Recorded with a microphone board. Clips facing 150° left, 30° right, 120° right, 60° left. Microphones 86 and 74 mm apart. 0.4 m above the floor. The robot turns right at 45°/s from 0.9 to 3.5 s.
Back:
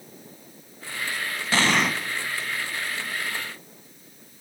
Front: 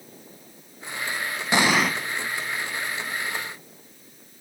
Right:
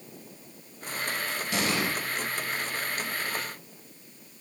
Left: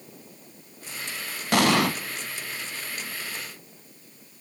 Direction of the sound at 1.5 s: 40° left.